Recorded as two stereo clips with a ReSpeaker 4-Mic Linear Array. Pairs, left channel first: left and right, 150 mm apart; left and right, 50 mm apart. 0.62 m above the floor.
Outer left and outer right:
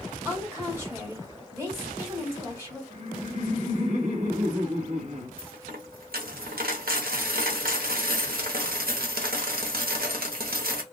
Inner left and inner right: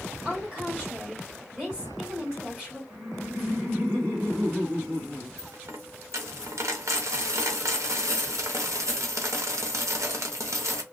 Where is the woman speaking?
15° right (ahead or behind), 1.6 m.